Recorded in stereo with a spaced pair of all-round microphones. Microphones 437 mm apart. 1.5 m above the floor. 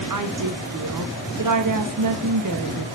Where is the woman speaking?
45° right (ahead or behind), 0.5 m.